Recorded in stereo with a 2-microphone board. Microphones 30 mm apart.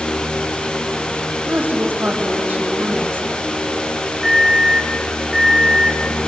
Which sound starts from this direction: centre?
An alarm, at 4.2 s.